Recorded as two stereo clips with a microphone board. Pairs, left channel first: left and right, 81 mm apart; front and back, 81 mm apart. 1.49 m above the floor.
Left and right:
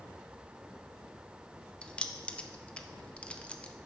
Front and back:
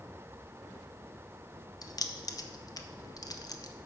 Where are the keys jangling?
20° left, 0.6 m.